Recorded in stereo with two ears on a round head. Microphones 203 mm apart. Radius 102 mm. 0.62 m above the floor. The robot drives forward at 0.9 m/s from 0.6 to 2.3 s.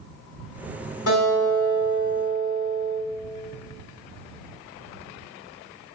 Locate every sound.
1.1 s a guitar: 75° left (ahead or behind), 6 m; by 3.0 s 80° left, 5.5 m